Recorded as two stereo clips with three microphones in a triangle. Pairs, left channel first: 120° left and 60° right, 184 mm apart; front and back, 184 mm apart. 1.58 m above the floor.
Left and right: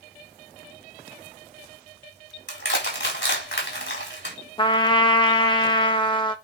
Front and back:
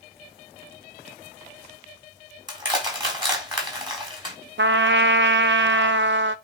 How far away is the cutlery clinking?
No cutlery clinking in this recording.